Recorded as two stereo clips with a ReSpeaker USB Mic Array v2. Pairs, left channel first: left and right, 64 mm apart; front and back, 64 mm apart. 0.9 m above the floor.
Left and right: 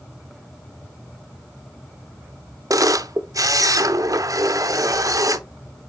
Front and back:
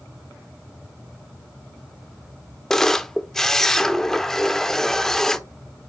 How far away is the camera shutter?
About 0.6 m.